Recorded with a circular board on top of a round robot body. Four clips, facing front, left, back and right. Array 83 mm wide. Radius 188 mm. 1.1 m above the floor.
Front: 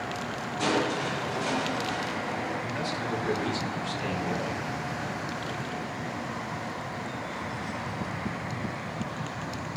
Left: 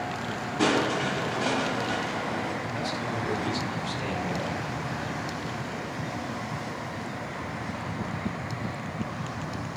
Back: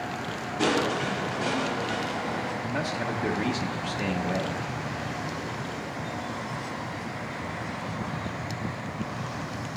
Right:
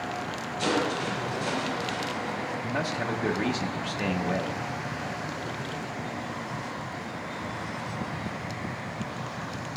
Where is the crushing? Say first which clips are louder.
Left 3 dB, back 2 dB; 115° left, 3.5 m.